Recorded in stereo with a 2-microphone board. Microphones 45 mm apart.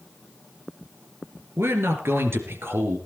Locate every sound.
1.6 s a man speaking: 70° right (ahead or behind), 3.5 m; by 3.0 s 65° right (ahead or behind), 3.5 m